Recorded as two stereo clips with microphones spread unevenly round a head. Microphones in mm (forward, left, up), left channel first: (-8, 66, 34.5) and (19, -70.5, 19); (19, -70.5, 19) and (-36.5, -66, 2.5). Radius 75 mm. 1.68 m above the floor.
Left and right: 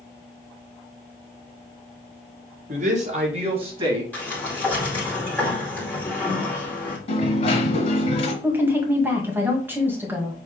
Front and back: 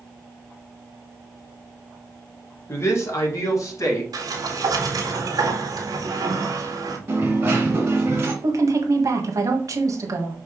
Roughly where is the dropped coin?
Left.